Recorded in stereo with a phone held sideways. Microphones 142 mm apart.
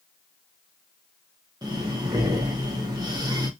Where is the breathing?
30° right (ahead or behind), 0.8 m.